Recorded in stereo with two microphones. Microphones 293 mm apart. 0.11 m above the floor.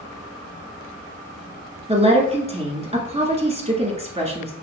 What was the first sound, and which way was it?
A woman speaking, 20° right (ahead or behind).